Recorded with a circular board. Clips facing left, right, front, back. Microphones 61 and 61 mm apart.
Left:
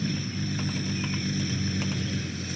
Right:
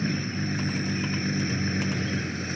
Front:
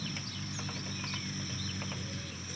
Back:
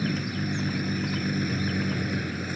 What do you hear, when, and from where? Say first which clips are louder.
0.0 s a vehicle: right 2 dB, back 13 dB; 145° right